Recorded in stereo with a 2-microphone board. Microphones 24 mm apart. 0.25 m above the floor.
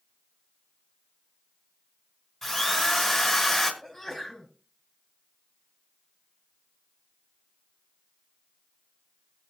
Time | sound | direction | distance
2.4 | a drill | 5° left (ahead or behind) | 3 m
3.8 | a sneeze | 10° left (ahead or behind) | 4.5 m